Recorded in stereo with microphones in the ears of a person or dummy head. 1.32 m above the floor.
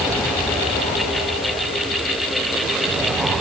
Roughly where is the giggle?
I don't hear a giggle.